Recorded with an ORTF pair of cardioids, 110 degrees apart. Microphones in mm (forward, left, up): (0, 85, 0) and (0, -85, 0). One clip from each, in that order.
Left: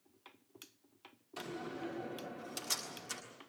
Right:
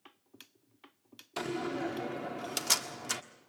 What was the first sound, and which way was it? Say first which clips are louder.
A door slam: right 8 dB; 55° right.